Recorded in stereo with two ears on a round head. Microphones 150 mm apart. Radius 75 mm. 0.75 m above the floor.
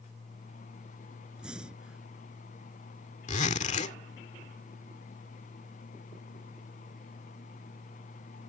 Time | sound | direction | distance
1.4 | breathing | 5° right (ahead or behind) | ?
3.3 | a zipper | 45° left (ahead or behind) | ?